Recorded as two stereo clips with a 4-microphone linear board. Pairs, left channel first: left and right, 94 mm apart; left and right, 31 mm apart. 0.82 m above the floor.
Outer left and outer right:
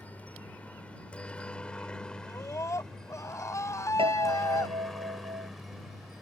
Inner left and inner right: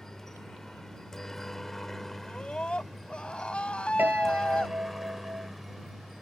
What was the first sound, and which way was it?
A helicopter, 15° left (ahead or behind).